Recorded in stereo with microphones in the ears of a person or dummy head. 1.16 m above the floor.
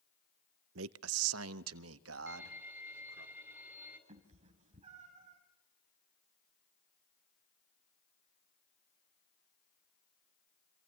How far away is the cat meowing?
About 2.5 m.